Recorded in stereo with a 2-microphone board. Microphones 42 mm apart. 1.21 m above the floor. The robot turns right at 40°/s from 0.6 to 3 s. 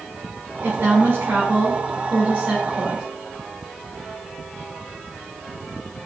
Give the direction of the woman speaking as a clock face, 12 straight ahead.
4 o'clock.